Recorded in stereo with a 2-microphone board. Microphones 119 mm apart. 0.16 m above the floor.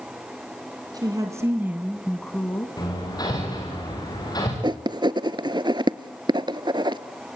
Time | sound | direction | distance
0.9 | a woman speaking | 35° right (ahead or behind) | 1.6 m
2.8 | hammering | 35° left (ahead or behind) | 6 m
4.6 | writing | 40° right (ahead or behind) | 0.6 m